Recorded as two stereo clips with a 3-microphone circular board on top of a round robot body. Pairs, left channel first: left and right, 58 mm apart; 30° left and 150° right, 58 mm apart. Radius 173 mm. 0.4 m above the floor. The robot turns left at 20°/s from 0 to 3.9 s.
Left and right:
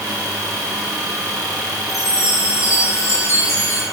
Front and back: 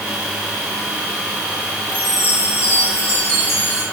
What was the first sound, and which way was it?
A chime, 85° left.